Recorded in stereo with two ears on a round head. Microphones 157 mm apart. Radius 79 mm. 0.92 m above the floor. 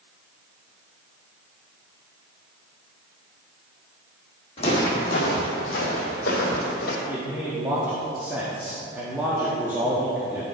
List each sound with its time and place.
4.6 s footsteps: 35° left (ahead or behind), 3 m; by 7.0 s 55° left (ahead or behind), 2.0 m
7.1 s a man speaking: 10° right (ahead or behind), 1.3 m